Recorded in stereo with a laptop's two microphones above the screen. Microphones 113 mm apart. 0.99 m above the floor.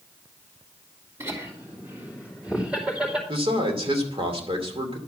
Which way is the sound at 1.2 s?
25° right (ahead or behind).